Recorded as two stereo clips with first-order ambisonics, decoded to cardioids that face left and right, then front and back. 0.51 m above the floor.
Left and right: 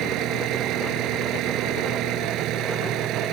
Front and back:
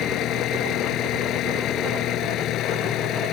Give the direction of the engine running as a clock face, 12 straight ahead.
2 o'clock.